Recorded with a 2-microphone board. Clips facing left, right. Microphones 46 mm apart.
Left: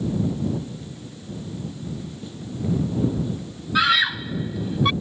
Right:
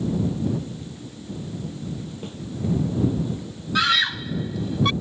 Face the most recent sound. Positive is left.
turn(degrees=10)  # may be behind; listen again after turning